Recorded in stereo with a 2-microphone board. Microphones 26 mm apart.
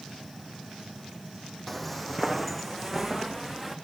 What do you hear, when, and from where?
1.7 s footsteps: 5° left (ahead or behind), 1.8 m; by 3.8 s 10° left (ahead or behind), 3.5 m